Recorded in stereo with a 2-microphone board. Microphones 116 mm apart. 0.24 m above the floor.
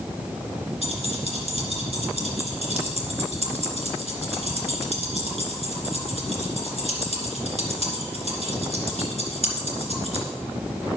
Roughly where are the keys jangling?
Right.